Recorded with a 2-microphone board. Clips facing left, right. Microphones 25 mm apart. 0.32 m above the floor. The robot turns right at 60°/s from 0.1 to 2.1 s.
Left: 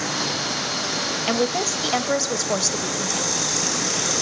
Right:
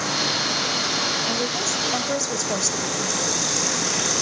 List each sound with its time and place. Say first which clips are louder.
1.3 s a woman speaking: left 2 dB; 100° left, 1.2 m; by 3.4 s 150° left, 1.2 m